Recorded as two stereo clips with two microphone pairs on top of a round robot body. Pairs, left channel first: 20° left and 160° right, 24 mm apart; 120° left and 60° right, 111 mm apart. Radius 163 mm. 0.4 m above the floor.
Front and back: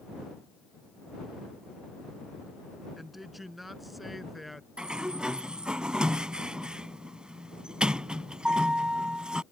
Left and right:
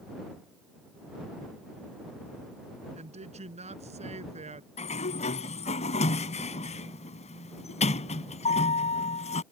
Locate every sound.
3.0 s a woman speaking: 80° right
4.8 s a sliding door: 140° left